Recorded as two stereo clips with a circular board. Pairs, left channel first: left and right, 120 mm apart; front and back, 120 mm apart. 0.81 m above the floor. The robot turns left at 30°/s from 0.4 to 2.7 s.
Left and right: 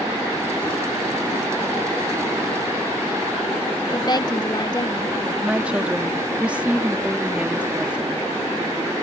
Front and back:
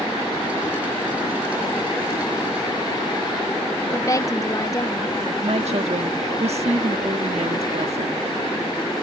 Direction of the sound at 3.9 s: 50° left.